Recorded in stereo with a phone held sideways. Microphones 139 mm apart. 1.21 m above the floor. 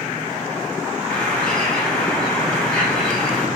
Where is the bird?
5° left (ahead or behind), 2.5 m.